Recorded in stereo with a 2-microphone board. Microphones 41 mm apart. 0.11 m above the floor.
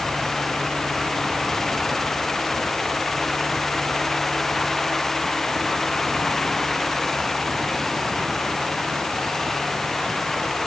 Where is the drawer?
No drawer in this recording.